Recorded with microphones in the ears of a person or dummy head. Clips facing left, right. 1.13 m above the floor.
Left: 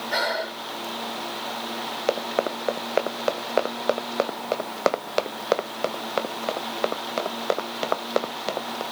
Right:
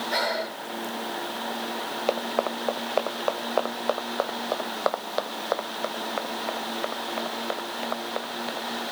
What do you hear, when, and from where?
0.1 s breathing: 10° left (ahead or behind)
2.1 s running footsteps: 15° left (ahead or behind); by 8.8 s 60° left (ahead or behind)